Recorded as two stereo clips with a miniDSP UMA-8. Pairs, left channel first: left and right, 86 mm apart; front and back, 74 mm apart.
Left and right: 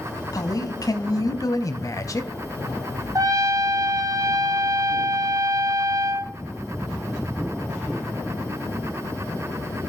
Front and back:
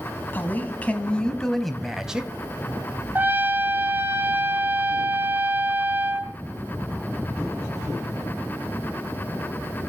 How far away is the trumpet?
About 1.4 m.